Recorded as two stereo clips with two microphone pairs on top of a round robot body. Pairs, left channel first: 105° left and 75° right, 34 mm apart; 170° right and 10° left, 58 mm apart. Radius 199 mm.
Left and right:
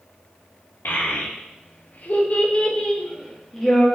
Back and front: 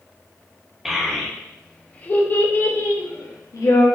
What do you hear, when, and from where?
0.8 s a child speaking: 95° left, 1.2 m; by 3.9 s 170° right, 1.2 m